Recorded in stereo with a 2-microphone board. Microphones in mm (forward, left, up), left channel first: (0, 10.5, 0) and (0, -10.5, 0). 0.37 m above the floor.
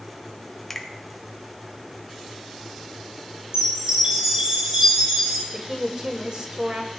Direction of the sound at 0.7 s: 15° left (ahead or behind).